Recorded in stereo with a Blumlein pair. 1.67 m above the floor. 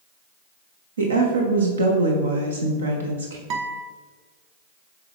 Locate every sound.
1.0 s a woman speaking: 70° right, 0.9 m
3.5 s a guitar: 40° right, 0.8 m